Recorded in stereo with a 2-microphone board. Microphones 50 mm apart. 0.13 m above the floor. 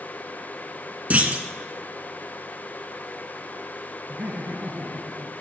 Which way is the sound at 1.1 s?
30° right (ahead or behind).